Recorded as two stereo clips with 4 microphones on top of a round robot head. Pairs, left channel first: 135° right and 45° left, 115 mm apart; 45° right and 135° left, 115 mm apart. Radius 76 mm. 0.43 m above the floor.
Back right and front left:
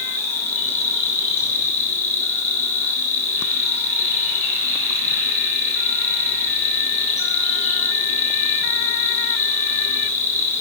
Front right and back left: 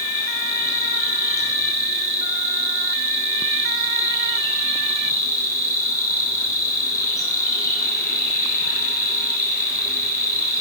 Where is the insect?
105° right, 6 m.